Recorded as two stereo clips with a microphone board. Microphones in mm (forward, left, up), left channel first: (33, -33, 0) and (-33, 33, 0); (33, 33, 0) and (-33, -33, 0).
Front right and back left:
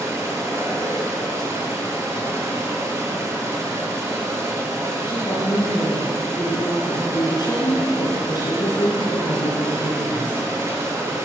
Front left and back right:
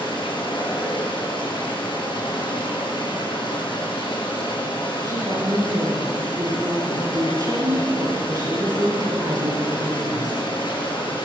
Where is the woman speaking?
85° right, 8 m.